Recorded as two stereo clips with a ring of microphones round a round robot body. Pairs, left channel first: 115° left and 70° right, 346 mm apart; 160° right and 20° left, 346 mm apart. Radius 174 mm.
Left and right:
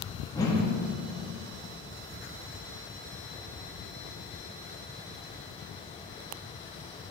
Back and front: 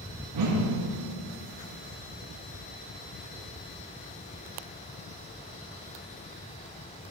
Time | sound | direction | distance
0.3 | a whoosh | 35° left | 1.4 m